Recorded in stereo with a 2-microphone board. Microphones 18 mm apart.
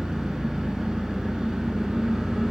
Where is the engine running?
75° right (ahead or behind), 3.5 m.